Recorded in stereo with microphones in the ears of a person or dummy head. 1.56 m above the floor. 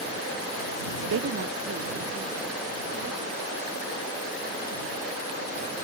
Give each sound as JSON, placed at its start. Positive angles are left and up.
{"t": 1.1, "sound": "a woman speaking", "side_deg": -70}